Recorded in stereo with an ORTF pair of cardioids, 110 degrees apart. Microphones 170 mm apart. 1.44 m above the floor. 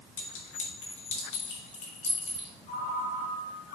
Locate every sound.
0.2 s a clink: 45° left, 2.5 m
2.7 s a ringtone: 60° left, 4 m